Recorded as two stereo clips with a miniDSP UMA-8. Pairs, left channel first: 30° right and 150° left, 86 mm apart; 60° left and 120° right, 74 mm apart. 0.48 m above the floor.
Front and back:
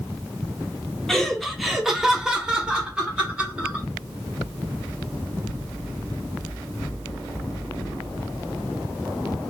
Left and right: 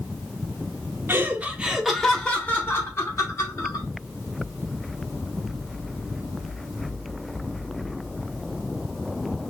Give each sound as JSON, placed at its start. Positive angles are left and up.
{"t": 1.1, "sound": "laughter", "azimuth_deg": -110, "distance_m": 0.8}